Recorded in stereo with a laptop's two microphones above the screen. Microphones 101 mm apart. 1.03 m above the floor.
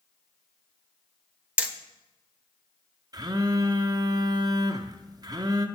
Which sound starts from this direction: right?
A phone buzzing, at 3.1 s.